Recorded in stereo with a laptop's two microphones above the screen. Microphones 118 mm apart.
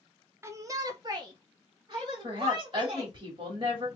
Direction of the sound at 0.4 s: 20° right (ahead or behind).